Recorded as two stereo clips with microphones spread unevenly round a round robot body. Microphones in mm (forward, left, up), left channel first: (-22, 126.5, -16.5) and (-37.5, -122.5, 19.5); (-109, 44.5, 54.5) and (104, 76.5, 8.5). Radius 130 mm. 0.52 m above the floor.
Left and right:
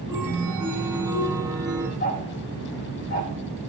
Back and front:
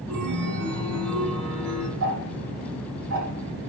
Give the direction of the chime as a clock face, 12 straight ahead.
12 o'clock.